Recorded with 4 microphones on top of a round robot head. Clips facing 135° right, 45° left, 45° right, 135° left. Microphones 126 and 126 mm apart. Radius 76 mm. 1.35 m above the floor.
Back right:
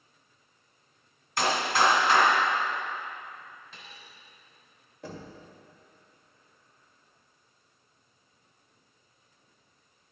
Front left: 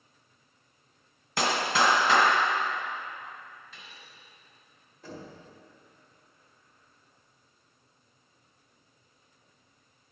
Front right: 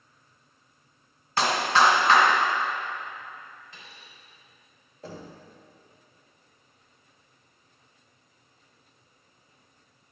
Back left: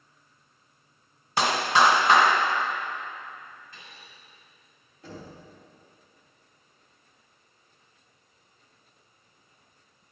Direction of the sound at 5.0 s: 100° right.